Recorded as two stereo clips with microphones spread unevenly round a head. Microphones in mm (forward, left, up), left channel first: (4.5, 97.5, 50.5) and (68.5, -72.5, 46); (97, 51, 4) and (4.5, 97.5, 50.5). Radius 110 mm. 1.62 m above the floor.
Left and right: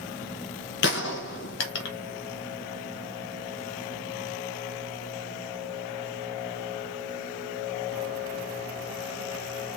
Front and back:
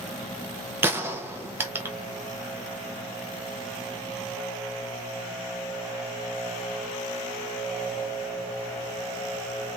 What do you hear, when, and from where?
0.8 s a gunshot: 120° left, 1.1 m